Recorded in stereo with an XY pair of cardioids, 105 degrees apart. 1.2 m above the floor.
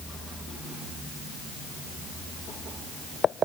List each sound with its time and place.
Only background noise.